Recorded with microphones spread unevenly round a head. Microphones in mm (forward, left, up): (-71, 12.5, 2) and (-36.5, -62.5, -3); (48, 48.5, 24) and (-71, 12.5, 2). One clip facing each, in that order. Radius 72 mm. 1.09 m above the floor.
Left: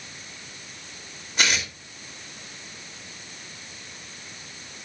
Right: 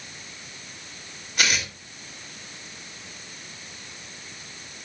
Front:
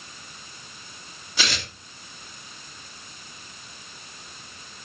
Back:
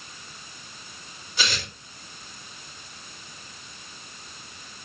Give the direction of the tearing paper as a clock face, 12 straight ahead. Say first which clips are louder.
Even, front 1 dB; 11 o'clock.